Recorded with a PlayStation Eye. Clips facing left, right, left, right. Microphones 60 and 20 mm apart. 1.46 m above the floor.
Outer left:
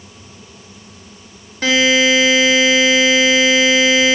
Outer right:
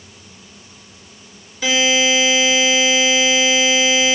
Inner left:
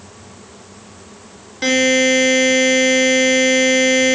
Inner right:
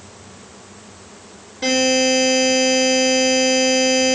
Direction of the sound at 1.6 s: 55° left (ahead or behind).